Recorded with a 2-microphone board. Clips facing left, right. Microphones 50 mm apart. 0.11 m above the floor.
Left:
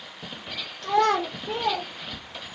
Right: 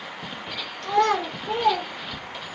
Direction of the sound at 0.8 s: 5° left (ahead or behind).